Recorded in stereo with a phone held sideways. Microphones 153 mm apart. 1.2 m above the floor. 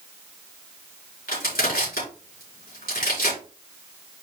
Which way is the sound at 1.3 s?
75° left (ahead or behind).